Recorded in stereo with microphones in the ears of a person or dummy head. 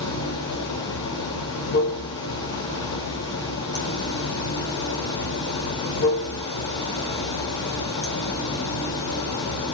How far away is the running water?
About 1.3 m.